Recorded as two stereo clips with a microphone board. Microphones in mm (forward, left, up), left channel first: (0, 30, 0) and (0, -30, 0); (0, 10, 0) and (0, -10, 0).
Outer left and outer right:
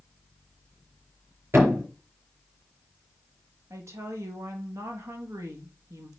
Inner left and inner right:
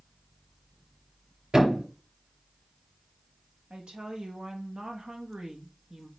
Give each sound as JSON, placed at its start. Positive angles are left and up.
{"t": 1.5, "sound": "a thud", "side_deg": -45, "distance_m": 4.0}
{"t": 3.7, "sound": "a woman speaking", "side_deg": -55, "distance_m": 1.5}